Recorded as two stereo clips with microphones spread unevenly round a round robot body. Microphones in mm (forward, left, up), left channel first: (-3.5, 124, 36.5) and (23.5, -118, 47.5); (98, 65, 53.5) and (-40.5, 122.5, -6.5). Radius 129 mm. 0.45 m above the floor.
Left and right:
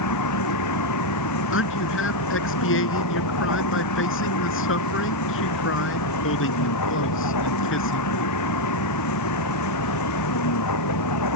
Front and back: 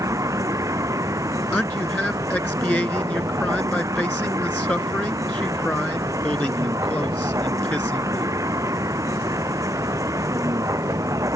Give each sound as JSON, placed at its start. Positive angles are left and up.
{"t": 0.0, "sound": "a vehicle", "azimuth_deg": 90}
{"t": 1.5, "sound": "a man speaking", "azimuth_deg": 60}